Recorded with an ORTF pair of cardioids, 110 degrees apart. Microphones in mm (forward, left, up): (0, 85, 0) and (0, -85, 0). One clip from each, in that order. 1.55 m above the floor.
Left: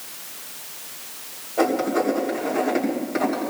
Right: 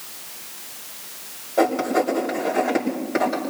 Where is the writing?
30° right, 6.5 m.